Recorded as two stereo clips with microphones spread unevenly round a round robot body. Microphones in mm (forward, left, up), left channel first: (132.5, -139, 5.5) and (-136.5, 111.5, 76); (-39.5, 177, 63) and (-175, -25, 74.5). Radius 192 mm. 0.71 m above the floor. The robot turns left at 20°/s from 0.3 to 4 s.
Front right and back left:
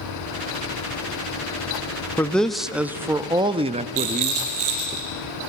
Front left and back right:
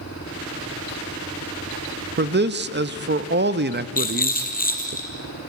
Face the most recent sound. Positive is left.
turn(degrees=110)